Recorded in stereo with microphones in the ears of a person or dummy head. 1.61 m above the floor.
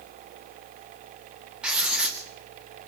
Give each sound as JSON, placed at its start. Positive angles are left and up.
{"t": 1.6, "sound": "writing", "side_deg": 0, "distance_m": 2.5}